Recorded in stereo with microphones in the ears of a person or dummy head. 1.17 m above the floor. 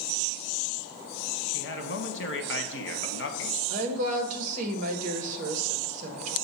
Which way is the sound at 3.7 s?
45° right (ahead or behind).